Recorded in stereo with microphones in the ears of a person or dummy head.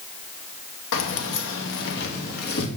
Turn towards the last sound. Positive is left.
turn(degrees=55)  # may be behind; listen again after turning